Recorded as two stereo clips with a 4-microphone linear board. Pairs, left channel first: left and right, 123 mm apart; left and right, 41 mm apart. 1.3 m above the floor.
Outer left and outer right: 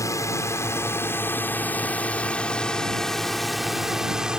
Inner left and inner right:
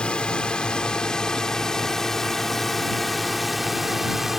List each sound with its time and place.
0.0 s a drone: 30° left (ahead or behind); by 4.4 s 10° right (ahead or behind)